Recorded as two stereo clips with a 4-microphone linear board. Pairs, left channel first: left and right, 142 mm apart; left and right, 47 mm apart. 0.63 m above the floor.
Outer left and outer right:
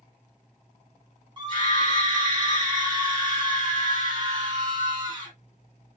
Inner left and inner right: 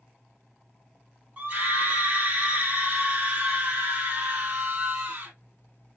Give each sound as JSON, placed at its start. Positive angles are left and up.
{"t": 1.4, "sound": "a scream", "side_deg": -35, "distance_m": 0.6}